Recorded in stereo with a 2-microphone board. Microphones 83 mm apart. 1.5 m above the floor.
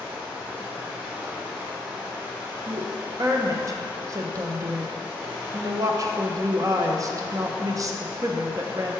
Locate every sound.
0.0 s running water: 20° right (ahead or behind), 1.7 m
2.7 s a woman speaking: 40° right (ahead or behind), 0.7 m